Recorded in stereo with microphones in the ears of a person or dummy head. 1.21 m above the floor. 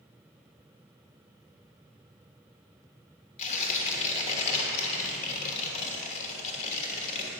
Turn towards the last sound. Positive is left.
turn(degrees=40)  # may be behind; listen again after turning